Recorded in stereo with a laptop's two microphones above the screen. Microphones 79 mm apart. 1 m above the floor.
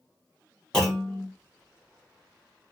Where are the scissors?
I don't hear scissors.